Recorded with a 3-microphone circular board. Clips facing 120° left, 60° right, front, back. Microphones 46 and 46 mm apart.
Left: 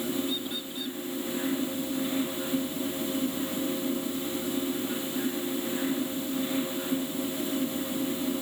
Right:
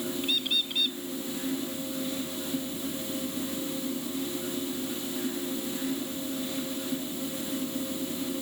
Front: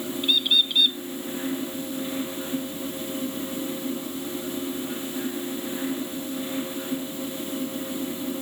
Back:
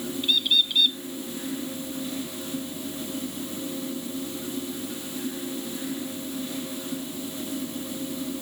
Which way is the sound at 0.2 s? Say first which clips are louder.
Right 3 dB, front 1 dB; 80° right.